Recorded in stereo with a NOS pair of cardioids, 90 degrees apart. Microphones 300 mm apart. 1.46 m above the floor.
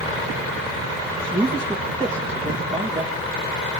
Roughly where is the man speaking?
Ahead.